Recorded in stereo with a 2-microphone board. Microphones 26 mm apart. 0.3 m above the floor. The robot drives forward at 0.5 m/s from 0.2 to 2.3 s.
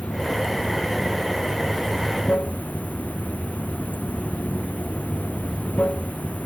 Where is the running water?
60° left (ahead or behind); by 6.5 s 70° left (ahead or behind).